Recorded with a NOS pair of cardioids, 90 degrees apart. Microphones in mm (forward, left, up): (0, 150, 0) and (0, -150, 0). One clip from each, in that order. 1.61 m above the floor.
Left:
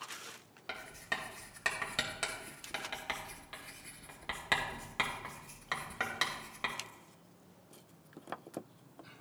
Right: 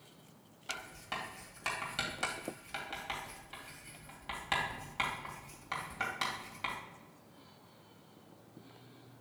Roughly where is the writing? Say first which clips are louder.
Left 2 dB; ahead left.